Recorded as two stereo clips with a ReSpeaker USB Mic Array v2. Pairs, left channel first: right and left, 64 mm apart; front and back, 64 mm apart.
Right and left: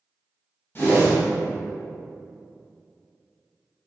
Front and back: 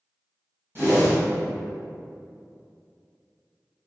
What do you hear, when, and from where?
0.8 s a whoosh: 140° right, 1.6 m